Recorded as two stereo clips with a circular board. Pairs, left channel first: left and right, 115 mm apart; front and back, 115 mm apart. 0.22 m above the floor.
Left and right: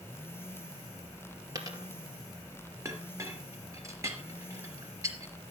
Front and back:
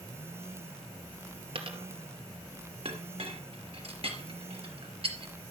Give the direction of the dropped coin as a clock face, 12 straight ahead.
5 o'clock.